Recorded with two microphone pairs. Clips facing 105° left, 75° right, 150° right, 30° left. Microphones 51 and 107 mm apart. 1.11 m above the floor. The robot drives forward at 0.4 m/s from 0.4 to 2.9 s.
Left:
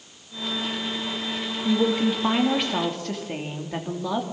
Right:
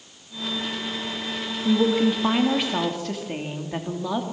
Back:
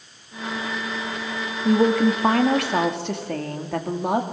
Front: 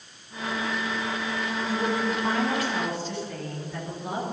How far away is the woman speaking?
About 2.5 m.